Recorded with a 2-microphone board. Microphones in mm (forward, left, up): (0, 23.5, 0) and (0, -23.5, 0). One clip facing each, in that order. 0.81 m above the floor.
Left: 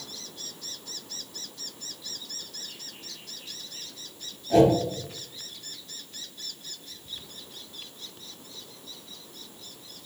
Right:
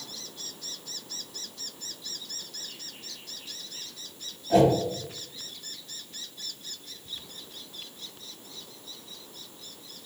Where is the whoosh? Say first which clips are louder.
Left 1 dB; 10° right (ahead or behind), 0.8 m.